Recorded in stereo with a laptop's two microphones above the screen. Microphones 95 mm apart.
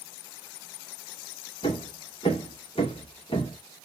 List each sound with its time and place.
1.6 s hammering: 70° left (ahead or behind), 1.2 m